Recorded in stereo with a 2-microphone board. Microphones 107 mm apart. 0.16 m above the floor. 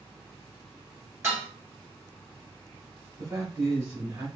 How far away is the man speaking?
About 1.7 m.